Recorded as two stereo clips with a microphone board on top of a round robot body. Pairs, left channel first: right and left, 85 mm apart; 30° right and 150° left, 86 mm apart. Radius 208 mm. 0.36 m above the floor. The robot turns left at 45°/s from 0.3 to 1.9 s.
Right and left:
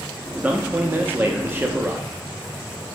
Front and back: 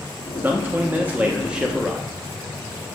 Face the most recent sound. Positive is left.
turn(degrees=70)